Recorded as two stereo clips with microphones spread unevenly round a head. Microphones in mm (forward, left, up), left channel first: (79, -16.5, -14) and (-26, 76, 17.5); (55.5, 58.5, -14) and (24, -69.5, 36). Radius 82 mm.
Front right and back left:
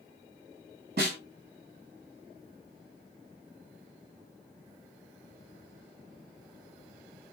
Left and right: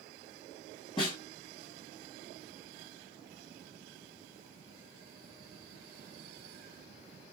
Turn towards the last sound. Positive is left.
turn(degrees=130)